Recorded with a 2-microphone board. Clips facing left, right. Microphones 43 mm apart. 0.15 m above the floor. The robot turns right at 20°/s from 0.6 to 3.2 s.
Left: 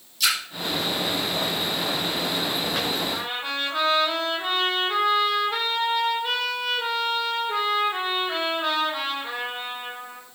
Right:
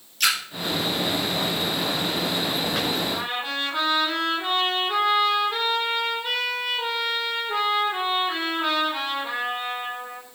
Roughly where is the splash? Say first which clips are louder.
Right 1 dB; right.